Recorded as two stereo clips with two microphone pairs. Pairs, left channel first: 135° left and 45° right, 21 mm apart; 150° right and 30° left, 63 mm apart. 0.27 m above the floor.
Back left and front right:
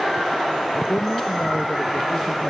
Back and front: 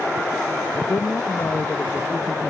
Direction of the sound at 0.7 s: 165° left.